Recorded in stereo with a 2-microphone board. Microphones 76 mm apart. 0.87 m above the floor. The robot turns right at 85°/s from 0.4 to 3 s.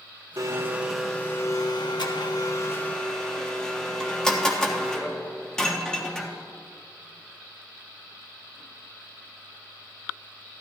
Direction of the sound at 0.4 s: 50° right.